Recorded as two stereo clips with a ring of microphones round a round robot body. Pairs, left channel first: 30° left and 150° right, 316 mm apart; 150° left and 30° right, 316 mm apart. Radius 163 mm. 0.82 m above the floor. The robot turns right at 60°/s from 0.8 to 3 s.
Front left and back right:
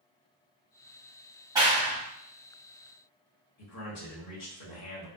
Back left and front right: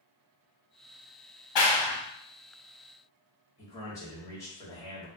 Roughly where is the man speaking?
Left.